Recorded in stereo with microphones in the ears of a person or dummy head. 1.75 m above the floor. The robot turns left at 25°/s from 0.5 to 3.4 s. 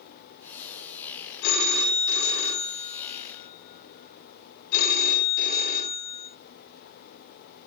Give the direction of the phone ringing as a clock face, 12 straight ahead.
8 o'clock.